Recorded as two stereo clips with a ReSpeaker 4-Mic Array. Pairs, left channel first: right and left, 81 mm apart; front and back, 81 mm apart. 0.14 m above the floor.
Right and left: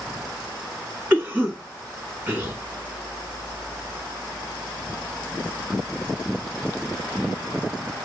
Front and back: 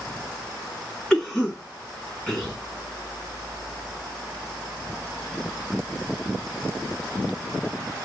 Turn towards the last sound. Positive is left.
turn(degrees=70)